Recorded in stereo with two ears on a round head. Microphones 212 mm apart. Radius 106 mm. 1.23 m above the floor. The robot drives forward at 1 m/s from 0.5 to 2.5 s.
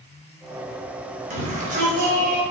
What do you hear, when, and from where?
1.3 s a shout: 30° right (ahead or behind), 5.5 m; by 2.4 s 40° right (ahead or behind), 4.5 m